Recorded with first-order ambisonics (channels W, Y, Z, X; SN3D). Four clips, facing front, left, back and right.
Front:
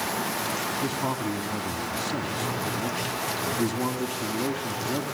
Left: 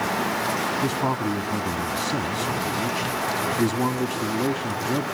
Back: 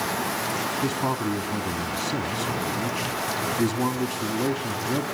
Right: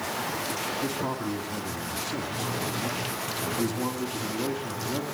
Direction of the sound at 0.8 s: 110° left.